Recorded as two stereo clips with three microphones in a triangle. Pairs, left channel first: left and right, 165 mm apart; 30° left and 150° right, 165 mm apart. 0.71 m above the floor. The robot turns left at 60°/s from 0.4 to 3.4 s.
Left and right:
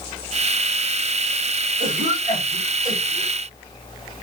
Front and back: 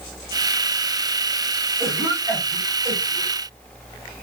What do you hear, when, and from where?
1.8 s a cough: 55° right, 2 m; by 3.4 s 150° right, 2 m